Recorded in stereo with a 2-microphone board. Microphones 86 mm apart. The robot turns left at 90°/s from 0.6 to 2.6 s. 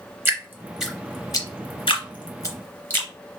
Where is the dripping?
25° right (ahead or behind), 0.8 m; by 3.1 s 25° left (ahead or behind), 0.8 m.